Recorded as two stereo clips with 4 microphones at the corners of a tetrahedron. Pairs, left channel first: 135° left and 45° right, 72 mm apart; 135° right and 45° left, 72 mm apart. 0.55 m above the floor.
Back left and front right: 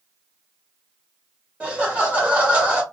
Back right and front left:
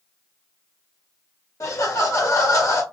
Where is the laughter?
110° right, 0.8 m.